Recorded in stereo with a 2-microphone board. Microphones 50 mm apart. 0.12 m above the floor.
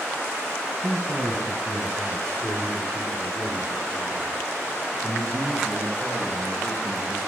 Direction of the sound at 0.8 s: 70° right (ahead or behind).